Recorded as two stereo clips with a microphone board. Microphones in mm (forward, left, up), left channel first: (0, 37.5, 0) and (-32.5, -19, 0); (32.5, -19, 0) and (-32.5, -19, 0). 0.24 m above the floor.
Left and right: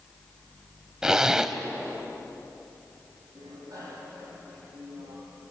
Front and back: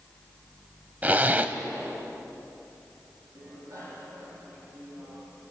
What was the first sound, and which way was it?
A zipper, 170° left.